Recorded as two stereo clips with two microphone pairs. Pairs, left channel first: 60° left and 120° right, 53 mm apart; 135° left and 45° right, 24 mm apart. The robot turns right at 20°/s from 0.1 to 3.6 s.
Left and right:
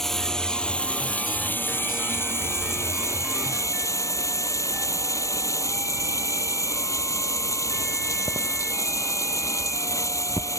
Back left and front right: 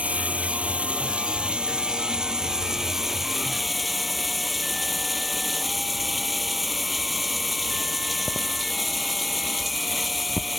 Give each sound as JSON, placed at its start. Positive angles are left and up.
{"t": 0.0, "sound": "running water", "azimuth_deg": -25}